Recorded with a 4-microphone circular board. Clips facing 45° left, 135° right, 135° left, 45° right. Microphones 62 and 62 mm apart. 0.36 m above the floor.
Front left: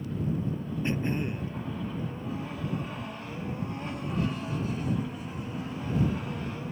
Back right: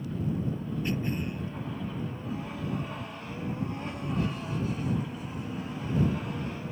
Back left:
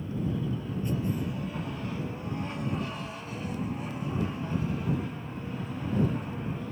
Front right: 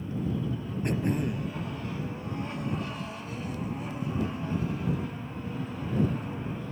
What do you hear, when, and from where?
0.8 s throat clearing: 20° right